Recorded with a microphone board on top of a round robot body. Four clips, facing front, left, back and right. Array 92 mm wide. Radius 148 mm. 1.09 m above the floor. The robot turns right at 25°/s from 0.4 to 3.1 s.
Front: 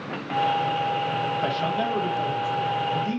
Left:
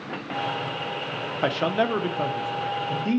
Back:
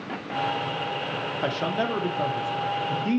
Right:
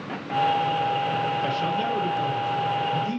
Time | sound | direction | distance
1.4 | a man speaking | 100° left | 0.7 m